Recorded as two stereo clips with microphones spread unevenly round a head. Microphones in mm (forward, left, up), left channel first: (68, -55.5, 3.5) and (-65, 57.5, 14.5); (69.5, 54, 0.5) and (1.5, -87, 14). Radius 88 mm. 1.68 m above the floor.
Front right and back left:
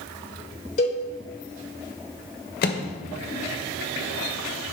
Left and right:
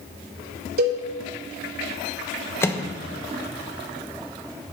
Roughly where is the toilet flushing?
No toilet flushing in this recording.